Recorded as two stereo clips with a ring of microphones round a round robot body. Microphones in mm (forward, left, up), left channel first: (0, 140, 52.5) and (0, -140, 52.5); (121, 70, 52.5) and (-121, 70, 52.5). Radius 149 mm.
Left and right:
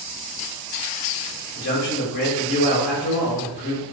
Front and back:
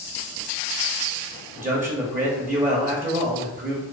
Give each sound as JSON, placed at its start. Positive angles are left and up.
{"t": 1.6, "sound": "a man speaking", "azimuth_deg": 135, "distance_m": 0.8}